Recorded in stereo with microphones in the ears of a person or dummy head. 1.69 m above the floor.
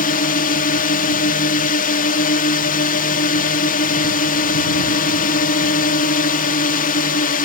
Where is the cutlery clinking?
No cutlery clinking in this recording.